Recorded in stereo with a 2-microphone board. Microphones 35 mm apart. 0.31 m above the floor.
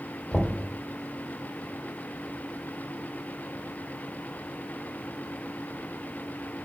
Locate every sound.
0.3 s knocking: 20° left (ahead or behind), 0.9 m